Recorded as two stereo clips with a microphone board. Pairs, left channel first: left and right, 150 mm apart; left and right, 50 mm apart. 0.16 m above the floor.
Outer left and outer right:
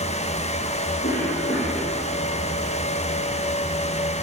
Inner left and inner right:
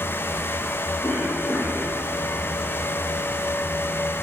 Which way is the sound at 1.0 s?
80° left.